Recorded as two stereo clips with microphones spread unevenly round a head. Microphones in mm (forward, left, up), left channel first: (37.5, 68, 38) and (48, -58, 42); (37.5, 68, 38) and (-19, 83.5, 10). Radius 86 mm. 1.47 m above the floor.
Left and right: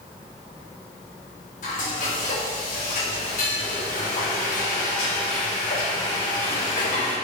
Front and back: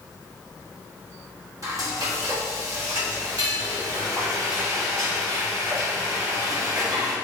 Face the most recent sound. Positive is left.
turn(degrees=135)